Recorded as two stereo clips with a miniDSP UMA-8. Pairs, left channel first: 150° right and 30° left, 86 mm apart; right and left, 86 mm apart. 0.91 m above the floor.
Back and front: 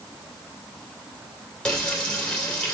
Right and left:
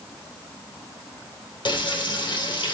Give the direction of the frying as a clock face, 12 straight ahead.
2 o'clock.